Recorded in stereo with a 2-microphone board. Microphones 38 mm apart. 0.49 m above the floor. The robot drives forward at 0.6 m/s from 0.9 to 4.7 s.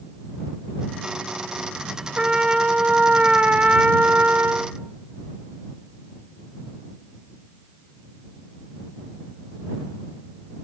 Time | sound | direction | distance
2.2 | a trumpet | 25° right (ahead or behind) | 1.9 m